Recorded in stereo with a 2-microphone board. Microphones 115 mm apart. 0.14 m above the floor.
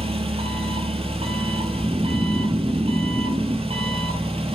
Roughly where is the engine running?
Right.